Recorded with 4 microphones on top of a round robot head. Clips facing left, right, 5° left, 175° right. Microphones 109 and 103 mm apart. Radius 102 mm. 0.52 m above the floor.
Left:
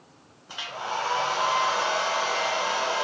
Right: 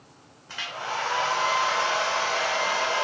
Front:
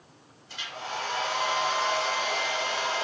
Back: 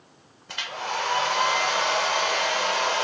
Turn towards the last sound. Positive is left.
turn(degrees=165)